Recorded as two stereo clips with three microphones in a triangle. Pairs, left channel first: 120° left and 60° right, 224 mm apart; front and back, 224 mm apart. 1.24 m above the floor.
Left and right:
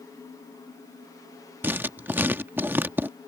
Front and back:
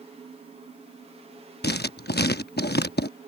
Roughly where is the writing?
Ahead.